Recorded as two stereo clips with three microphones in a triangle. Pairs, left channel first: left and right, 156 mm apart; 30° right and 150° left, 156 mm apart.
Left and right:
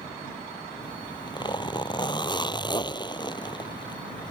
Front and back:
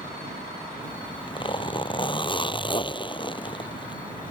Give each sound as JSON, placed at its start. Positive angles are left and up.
{"t": 0.8, "sound": "a zipper", "azimuth_deg": 30}